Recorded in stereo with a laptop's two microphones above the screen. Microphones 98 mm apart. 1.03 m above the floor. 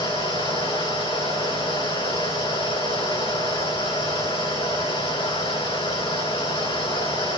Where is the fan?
70° left (ahead or behind), 4 m.